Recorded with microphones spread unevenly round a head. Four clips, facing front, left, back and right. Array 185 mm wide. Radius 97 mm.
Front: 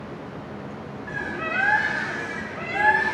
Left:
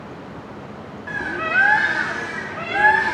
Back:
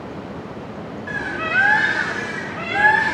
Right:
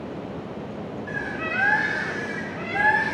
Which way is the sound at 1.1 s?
105° left.